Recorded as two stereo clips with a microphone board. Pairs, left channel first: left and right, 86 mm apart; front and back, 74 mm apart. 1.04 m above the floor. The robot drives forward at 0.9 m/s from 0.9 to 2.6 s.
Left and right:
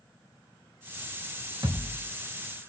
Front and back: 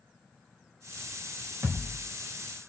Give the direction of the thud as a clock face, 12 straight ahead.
4 o'clock.